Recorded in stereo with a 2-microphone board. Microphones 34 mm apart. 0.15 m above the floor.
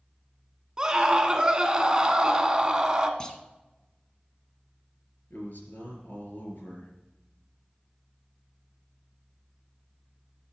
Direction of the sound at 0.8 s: 20° right (ahead or behind).